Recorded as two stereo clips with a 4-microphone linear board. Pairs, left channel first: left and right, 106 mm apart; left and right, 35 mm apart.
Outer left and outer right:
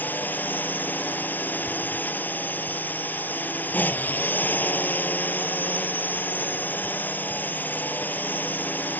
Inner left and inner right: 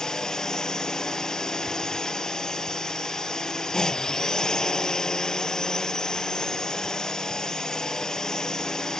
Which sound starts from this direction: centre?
A drone, at 0.0 s.